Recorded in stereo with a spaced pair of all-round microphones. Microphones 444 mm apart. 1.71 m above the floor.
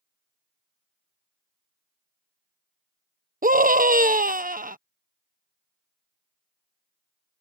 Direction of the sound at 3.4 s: 20° right (ahead or behind).